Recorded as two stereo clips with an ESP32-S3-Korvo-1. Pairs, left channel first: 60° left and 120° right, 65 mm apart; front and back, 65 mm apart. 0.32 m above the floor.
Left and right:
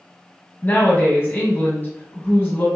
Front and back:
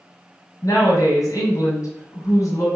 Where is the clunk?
I don't hear a clunk.